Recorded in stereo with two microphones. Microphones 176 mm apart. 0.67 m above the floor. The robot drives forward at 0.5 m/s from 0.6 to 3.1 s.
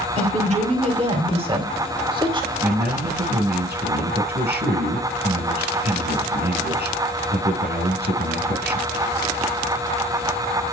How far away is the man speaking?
About 6.5 m.